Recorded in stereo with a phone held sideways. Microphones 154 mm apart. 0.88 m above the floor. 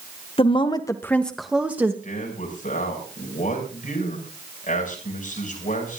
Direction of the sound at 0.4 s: 40° left (ahead or behind).